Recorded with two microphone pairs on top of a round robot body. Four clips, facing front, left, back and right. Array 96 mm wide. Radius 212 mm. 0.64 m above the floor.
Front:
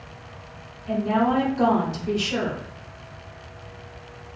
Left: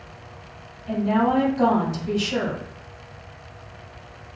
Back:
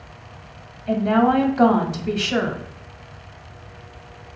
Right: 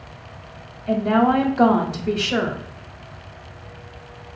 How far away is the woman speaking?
About 1.2 m.